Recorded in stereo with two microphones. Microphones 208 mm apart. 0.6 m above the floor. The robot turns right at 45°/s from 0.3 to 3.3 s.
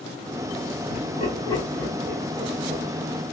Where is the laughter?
45° left (ahead or behind), 3 m; by 2.8 s 40° right (ahead or behind), 3 m.